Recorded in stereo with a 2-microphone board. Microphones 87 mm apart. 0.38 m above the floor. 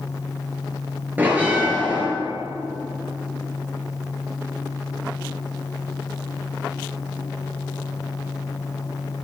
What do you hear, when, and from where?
1.2 s a bell: 20° right (ahead or behind), 6 m